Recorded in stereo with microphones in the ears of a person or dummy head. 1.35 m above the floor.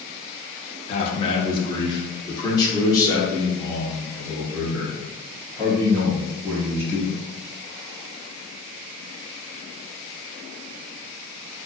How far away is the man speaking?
About 1.0 m.